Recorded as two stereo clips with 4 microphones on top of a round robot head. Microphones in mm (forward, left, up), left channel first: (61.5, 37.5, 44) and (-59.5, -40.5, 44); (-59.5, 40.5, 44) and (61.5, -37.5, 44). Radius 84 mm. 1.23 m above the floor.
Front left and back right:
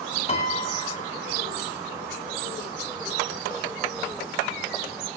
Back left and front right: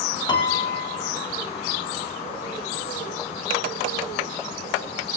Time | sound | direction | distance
0.3 | a piano | 85° left | 2.5 m